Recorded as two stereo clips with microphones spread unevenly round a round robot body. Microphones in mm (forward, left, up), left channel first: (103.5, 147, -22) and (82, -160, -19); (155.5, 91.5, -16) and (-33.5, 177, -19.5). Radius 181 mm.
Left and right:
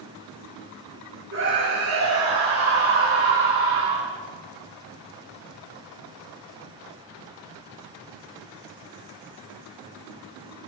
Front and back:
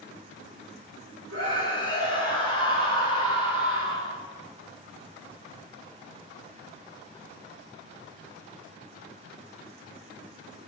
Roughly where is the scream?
Behind right.